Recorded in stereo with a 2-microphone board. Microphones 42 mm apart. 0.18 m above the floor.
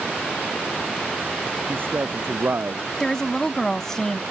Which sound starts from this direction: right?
A man speaking, at 1.7 s.